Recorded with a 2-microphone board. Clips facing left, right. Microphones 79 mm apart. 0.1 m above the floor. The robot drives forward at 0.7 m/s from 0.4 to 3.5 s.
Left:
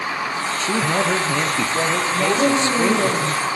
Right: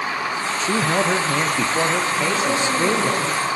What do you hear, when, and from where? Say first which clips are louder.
0.6 s a man speaking: even; 10° right (ahead or behind), 1.9 m; by 3.1 s 5° right (ahead or behind), 3.5 m
2.1 s a woman speaking: left 3 dB; 40° left (ahead or behind), 10 m; by 3.5 s 45° left (ahead or behind), 9.5 m